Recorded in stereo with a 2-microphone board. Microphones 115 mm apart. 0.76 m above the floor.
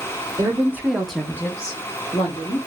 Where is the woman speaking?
30° right (ahead or behind), 0.8 m; by 2.6 s 60° left (ahead or behind), 1.0 m.